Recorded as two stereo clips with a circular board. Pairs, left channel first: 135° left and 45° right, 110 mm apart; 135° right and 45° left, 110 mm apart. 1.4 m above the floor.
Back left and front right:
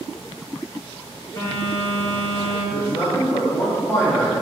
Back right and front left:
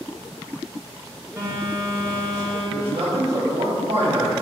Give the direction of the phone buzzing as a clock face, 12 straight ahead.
9 o'clock.